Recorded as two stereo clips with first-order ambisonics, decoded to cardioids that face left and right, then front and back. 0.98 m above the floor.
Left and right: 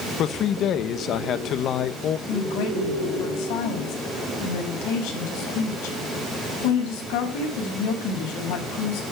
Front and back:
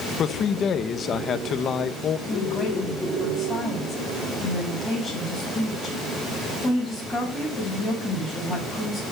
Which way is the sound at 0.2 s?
50° left.